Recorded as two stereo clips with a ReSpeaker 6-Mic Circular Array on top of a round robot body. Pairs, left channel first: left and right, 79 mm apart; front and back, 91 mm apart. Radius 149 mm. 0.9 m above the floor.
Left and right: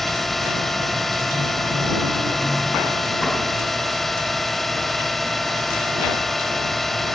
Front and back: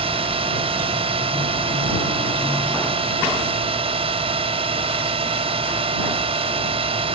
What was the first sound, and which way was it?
A drone, straight behind.